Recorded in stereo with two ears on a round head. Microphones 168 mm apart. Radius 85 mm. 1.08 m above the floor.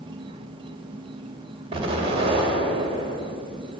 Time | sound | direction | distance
0.0 | an insect | 25° right (ahead or behind) | 0.8 m
1.7 | an explosion | 30° right (ahead or behind) | 2.5 m